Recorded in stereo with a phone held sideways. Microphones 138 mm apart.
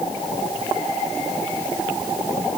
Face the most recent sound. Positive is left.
No sound to turn to.